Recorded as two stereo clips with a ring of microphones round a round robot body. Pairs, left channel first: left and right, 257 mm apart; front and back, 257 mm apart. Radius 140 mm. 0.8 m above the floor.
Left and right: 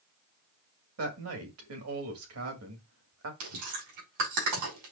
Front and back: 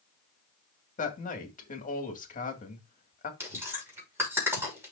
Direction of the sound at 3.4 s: 100° right.